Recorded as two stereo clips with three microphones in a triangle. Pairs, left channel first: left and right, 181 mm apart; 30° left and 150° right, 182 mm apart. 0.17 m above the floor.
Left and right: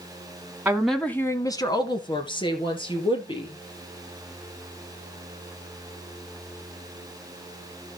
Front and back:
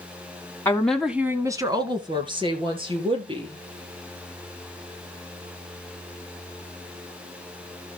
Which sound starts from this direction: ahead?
A woman speaking, at 0.7 s.